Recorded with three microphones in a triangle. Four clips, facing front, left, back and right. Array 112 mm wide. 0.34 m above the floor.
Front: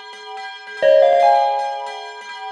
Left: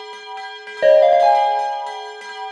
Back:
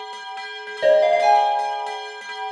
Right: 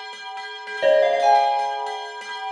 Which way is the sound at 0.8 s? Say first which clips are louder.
Left 5 dB, front 4 dB; 40° left.